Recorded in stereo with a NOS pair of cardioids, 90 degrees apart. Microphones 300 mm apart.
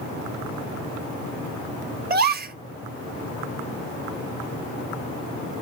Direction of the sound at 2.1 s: 35° right.